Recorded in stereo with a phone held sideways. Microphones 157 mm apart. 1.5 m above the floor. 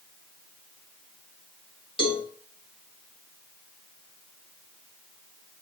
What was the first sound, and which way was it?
A cowbell, 35° left (ahead or behind).